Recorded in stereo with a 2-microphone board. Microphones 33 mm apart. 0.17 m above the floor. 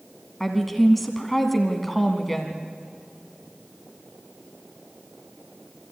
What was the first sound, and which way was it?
A woman speaking, 5° left (ahead or behind).